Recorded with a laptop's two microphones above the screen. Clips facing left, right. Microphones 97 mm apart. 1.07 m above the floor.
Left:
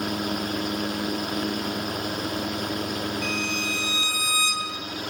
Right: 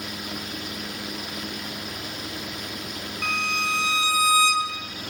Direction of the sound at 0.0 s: 50° left (ahead or behind).